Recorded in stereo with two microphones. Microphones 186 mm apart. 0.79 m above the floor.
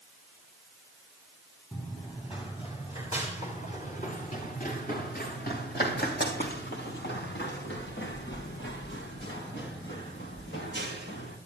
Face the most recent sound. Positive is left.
turn(degrees=75)  # may be behind; listen again after turning